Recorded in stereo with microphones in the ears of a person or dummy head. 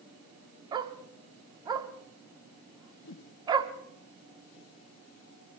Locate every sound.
0.7 s a dog barking: 25° right (ahead or behind), 1.1 m
3.0 s a whoosh: 60° left (ahead or behind), 0.9 m